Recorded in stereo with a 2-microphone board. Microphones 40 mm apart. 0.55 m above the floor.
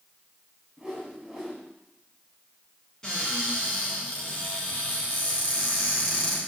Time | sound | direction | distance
0.8 | a whoosh | 15° right (ahead or behind) | 2.5 m
3.0 | a cupboard door | 15° left (ahead or behind) | 4 m